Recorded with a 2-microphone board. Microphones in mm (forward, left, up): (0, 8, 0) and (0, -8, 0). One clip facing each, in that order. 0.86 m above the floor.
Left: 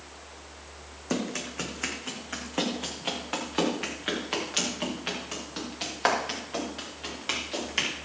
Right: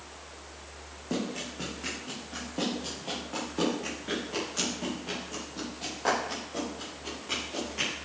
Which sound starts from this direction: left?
Running footsteps, at 1.1 s.